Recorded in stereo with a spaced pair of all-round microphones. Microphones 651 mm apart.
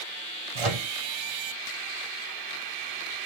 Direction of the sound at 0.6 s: 55° right (ahead or behind).